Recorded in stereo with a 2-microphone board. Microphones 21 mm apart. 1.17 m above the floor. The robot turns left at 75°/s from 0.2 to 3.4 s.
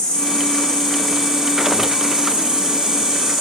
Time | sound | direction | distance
0.0 | an insect | 70° left | 3.5 m